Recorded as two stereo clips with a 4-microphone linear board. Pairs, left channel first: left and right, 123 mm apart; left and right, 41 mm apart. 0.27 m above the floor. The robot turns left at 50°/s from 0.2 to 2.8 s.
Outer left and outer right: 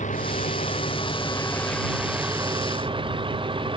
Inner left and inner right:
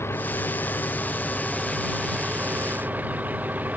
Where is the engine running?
85° left; by 3.8 s 45° right.